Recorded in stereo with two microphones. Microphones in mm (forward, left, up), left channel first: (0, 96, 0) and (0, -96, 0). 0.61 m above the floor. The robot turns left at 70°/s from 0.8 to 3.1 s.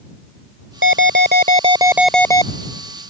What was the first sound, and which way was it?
An alarm, 90° right.